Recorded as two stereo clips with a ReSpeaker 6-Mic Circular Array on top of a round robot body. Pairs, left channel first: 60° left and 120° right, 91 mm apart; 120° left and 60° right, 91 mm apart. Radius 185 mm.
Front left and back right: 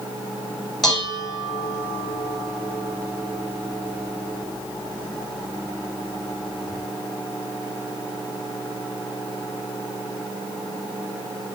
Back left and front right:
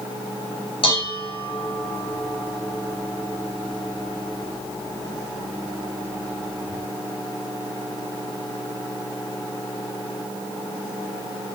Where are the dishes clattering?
145° left, 4.5 m.